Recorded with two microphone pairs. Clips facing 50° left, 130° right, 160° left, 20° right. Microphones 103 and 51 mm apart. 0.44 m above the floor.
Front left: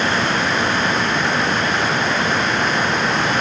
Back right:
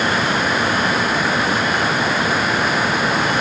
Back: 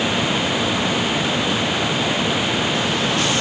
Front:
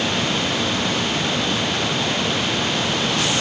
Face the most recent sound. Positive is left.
No sound to turn to.